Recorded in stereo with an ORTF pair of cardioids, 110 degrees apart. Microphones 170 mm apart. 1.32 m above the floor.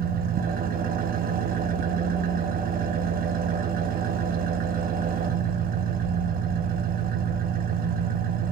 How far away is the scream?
I don't hear a scream.